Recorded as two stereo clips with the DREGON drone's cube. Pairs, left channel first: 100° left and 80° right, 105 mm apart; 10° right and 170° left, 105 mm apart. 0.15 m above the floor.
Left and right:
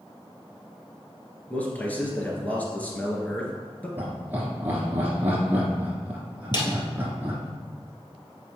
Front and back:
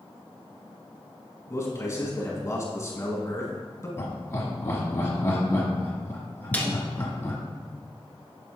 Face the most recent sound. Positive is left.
turn(degrees=65)